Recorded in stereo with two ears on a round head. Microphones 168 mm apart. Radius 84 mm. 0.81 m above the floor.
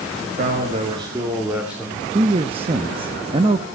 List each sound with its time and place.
0.2 s a man speaking: 55° right (ahead or behind), 2 m; by 2.0 s centre (ahead or behind), 3 m
2.1 s a man speaking: 30° right (ahead or behind), 0.7 m